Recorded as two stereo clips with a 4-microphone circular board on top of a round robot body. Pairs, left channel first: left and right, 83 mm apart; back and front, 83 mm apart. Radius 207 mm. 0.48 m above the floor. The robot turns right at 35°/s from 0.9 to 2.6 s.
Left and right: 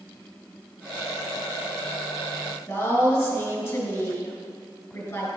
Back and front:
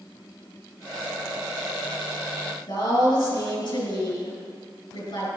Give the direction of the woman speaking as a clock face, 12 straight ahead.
7 o'clock.